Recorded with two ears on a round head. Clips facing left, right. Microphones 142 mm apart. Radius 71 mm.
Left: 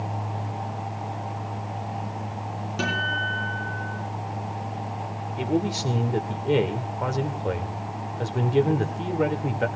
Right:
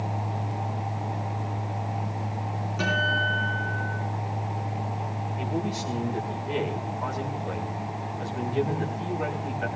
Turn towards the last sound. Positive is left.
turn(degrees=65)  # may be behind; listen again after turning